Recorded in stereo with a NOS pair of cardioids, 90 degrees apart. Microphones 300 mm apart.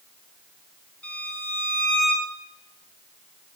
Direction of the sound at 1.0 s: 5° left.